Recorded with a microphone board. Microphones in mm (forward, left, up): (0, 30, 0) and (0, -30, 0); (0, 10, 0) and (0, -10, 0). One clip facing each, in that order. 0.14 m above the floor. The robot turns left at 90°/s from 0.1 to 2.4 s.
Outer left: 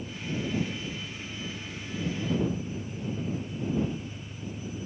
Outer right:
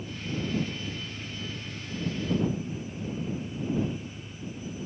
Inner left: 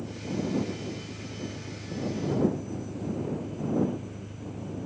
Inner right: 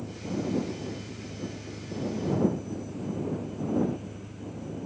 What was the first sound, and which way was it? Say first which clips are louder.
An engine running: even, even; 25° right.